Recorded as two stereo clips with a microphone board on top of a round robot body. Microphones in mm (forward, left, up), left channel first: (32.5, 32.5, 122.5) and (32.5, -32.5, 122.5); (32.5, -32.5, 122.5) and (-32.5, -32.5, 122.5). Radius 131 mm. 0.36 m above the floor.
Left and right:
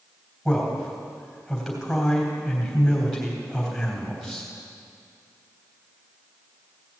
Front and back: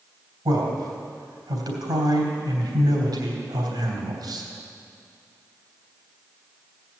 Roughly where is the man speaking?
Behind.